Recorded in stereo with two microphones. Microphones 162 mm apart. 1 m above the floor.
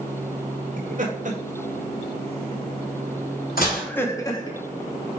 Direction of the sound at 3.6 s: 70° left (ahead or behind).